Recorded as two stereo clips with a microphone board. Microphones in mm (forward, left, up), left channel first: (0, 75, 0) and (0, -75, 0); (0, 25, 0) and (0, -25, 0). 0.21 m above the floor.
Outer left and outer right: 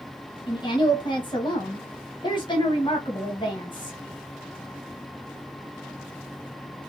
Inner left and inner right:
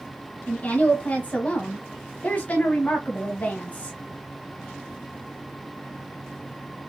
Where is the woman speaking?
30° left (ahead or behind), 1.3 m.